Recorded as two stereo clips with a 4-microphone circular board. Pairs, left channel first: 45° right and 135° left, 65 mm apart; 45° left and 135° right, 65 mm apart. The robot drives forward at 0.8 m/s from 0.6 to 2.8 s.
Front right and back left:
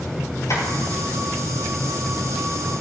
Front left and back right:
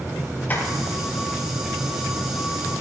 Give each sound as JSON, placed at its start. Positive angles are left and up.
{"t": 0.5, "sound": "tapping", "azimuth_deg": -15, "distance_m": 6.0}